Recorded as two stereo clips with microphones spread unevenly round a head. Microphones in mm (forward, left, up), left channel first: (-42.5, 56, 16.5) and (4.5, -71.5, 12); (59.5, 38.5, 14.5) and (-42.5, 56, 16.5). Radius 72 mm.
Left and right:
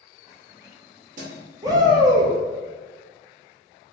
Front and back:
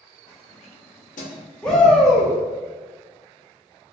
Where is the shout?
80° right, 0.8 m.